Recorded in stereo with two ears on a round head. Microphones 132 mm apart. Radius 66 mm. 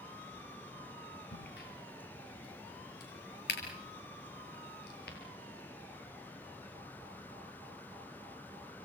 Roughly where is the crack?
Left.